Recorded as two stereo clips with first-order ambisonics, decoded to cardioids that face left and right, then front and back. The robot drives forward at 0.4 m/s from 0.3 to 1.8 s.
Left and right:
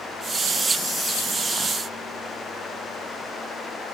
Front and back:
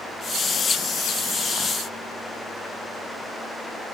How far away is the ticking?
No ticking in this recording.